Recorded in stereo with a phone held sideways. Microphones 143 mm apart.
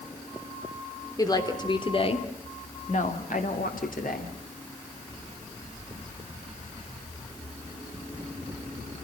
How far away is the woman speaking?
About 3 m.